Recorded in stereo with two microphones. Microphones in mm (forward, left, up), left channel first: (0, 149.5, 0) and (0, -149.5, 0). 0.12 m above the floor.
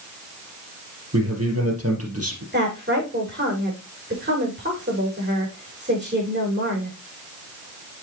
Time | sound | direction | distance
1.1 | a man speaking | 50° right (ahead or behind) | 4 m
2.5 | a woman speaking | 35° right (ahead or behind) | 7 m